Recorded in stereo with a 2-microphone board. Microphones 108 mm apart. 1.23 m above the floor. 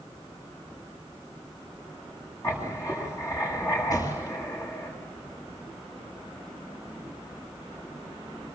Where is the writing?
30° left (ahead or behind), 9 m.